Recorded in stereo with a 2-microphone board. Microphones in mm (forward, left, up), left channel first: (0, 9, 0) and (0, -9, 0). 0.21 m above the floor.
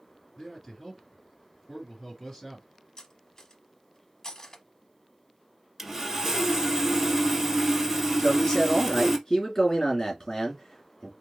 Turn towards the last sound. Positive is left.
turn(degrees=30)  # may be behind; listen again after turning